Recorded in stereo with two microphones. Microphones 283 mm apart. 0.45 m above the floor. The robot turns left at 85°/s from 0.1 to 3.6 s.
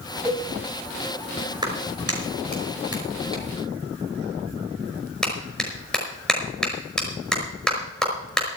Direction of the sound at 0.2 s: 10° right (ahead or behind).